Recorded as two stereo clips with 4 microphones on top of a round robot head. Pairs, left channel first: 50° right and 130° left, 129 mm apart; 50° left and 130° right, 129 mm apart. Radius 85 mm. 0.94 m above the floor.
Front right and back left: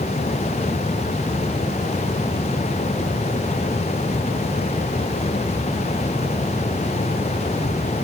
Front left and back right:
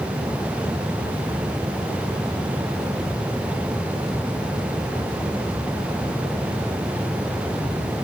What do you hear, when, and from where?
Only background noise.